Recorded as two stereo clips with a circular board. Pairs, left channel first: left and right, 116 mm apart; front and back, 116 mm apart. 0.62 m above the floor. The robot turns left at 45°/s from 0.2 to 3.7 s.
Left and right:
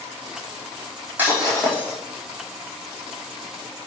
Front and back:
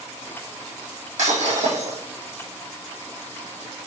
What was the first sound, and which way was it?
Breaking glass, 165° right.